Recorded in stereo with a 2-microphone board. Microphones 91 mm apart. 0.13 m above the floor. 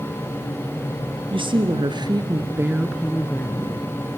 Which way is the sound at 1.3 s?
65° right (ahead or behind).